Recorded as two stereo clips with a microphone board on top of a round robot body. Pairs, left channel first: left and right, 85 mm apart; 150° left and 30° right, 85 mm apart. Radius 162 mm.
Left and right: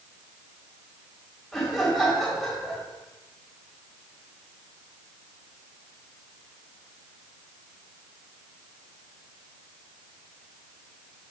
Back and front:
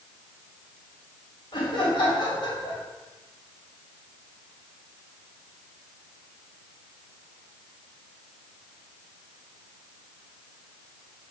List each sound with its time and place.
1.5 s laughter: straight behind, 3 m